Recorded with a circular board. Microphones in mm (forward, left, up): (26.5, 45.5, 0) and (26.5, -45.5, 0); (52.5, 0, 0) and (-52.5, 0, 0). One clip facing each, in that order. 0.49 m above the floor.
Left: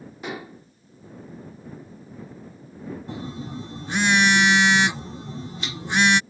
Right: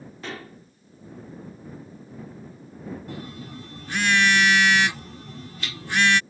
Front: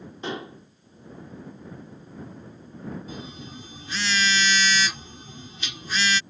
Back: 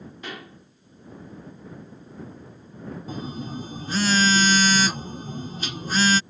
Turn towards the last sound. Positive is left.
turn(degrees=150)